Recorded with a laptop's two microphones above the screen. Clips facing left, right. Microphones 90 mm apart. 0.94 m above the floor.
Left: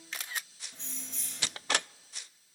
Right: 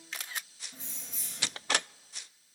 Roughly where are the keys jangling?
Centre.